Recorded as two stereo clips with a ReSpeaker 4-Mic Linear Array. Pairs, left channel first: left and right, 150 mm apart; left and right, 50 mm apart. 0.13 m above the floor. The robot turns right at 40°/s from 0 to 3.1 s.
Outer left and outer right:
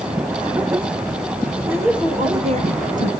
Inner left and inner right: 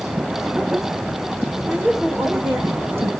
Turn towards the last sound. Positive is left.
turn(degrees=-110)